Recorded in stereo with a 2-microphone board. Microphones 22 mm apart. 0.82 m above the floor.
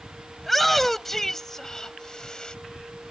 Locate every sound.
0.4 s a shout: 5° left (ahead or behind); by 2.5 s 40° left (ahead or behind)